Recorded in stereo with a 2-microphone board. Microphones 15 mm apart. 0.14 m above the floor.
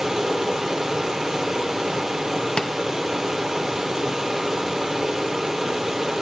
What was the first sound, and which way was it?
Running water, 30° right (ahead or behind).